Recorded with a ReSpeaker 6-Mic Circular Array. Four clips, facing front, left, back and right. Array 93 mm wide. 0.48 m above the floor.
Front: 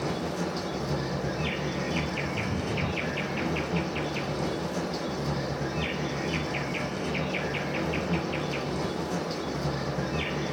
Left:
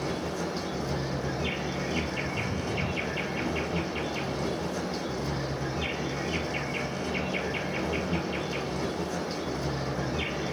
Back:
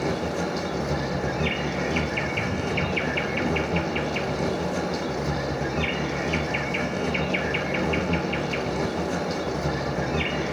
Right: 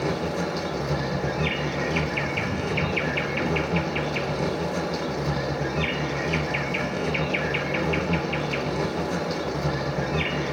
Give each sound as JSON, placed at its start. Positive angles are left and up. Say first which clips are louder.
{"t": 0.0, "sound": "an insect", "louder": "right 5 dB, back 4 dB", "azimuth_deg": -130, "distance_m": 1.4}